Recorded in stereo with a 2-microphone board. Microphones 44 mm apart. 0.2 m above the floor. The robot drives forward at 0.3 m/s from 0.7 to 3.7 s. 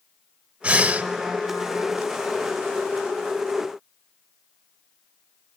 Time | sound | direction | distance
0.6 | breathing | 30° right (ahead or behind) | 0.7 m